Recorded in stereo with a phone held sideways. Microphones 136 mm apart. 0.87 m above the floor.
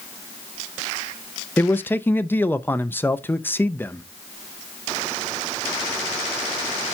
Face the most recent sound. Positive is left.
turn(degrees=15)  # may be behind; listen again after turning